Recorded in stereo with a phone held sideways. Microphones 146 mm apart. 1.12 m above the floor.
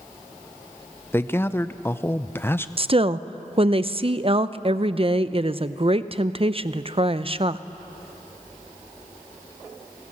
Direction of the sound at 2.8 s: 40° right (ahead or behind).